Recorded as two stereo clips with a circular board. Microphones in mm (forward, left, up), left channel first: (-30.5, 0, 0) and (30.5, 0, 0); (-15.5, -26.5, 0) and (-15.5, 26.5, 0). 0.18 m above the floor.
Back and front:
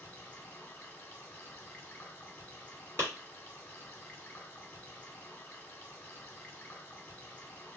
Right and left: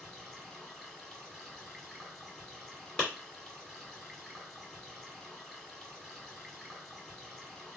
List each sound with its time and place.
0.0 s running water: 175° right, 0.9 m
3.0 s a clap: 25° right, 1.7 m